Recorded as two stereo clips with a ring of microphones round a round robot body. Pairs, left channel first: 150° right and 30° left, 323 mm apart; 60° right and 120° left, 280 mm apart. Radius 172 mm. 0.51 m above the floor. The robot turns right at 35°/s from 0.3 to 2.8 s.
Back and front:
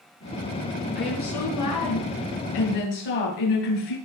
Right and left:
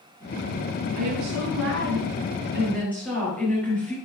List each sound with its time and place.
0.9 s a woman speaking: 150° left, 7.5 m; by 4.0 s 145° right, 7.5 m